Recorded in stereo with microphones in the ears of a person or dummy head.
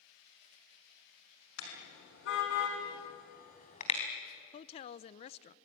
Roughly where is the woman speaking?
Left.